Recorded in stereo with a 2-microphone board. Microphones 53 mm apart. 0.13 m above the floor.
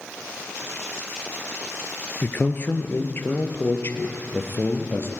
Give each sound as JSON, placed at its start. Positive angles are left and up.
{"t": 2.2, "sound": "a man speaking", "side_deg": 35, "distance_m": 1.7}